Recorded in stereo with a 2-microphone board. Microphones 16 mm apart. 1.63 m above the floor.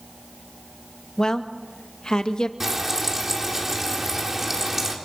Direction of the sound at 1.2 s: 45° left (ahead or behind).